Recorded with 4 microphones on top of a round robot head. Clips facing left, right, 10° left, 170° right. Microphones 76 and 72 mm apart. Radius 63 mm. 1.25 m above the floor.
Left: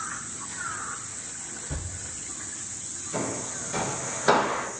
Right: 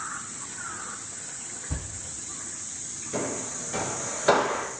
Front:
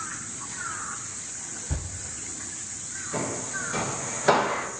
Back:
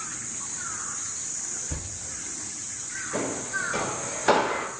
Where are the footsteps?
70° right, 1.2 m; by 4.7 s 105° left, 1.2 m.